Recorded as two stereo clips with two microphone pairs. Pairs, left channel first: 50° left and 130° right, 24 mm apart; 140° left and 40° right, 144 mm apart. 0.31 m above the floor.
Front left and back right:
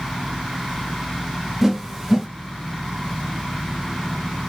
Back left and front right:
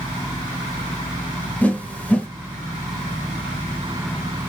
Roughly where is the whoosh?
Behind.